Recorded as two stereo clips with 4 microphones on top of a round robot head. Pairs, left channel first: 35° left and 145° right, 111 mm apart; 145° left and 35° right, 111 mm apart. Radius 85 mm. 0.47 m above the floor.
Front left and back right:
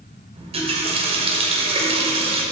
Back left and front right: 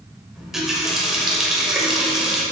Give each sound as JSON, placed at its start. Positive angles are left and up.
{"t": 0.3, "sound": "a running tap", "azimuth_deg": -120, "distance_m": 1.6}